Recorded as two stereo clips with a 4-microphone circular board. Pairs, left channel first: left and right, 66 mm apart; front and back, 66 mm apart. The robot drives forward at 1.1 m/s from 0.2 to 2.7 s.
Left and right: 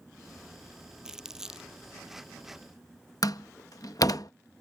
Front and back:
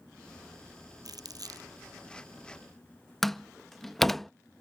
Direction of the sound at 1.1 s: 170° right.